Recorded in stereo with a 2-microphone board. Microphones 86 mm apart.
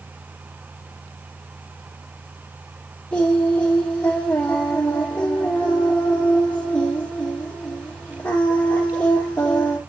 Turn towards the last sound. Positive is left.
turn(degrees=15)  # may be behind; listen again after turning